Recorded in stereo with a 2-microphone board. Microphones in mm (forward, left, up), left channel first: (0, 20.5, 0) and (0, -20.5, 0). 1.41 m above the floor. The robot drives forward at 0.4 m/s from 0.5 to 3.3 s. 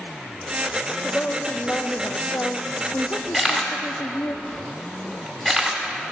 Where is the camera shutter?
5° left (ahead or behind), 1.8 m.